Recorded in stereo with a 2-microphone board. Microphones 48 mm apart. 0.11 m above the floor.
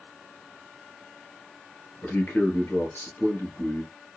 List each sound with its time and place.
2.0 s a man speaking: 45° left (ahead or behind), 1.6 m